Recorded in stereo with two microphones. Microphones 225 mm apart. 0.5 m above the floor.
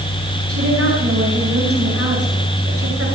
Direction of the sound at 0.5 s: 80° right.